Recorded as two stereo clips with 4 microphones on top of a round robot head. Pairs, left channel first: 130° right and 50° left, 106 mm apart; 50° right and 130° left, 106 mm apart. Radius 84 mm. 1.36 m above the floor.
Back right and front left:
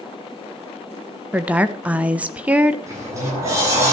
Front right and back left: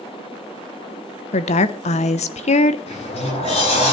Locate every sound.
1.3 s a woman speaking: 30° right, 1.1 m
2.9 s a sliding door: 15° right, 9 m